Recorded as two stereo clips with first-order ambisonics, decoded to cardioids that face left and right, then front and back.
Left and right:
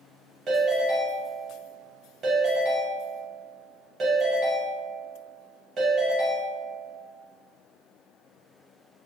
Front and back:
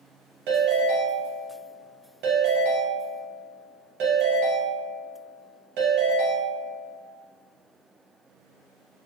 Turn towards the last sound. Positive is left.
turn(degrees=-160)